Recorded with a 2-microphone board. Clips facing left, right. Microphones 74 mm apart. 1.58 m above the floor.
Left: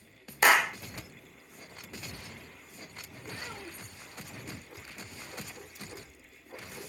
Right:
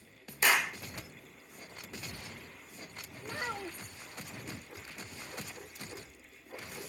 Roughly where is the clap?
Left.